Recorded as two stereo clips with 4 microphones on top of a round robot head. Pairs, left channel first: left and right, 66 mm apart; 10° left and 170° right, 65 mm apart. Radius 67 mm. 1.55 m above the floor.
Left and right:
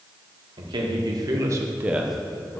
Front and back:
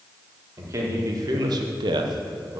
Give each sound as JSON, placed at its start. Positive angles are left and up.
{"t": 0.6, "sound": "a man speaking", "azimuth_deg": -115, "distance_m": 2.5}